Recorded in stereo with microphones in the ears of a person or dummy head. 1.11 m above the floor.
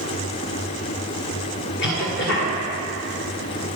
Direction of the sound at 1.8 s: 55° left (ahead or behind).